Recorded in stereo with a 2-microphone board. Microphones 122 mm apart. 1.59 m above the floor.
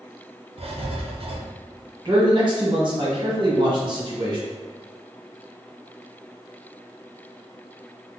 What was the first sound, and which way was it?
Writing, 55° right (ahead or behind).